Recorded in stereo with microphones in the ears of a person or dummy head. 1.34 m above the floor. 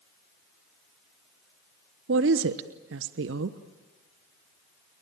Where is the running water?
I don't hear running water.